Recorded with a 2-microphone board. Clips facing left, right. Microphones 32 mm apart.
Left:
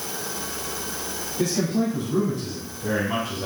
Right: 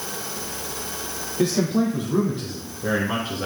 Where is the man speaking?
20° right (ahead or behind), 3 m; by 3.5 s 30° right (ahead or behind), 2 m.